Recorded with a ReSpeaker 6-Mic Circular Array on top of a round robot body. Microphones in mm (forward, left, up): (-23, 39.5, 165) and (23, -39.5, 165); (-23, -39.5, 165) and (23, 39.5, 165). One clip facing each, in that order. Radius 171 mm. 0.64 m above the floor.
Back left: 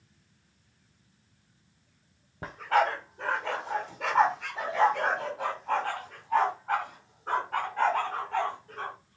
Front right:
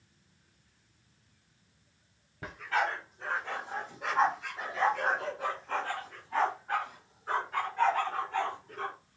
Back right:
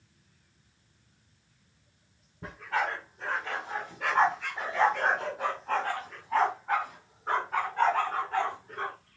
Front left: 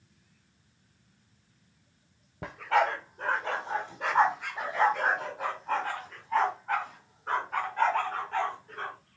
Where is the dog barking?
65° left, 0.6 m; by 8.9 s 160° left, 3.5 m.